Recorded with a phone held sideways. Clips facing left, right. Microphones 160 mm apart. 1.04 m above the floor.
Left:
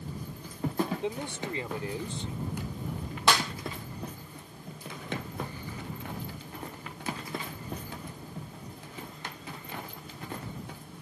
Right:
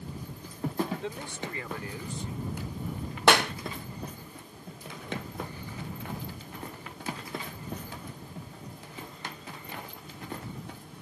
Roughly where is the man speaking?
Centre.